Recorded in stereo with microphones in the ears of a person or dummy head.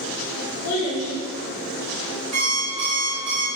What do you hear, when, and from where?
0.6 s a child speaking: 55° left (ahead or behind), 2.5 m
2.3 s an alarm clock: 30° right (ahead or behind), 1.6 m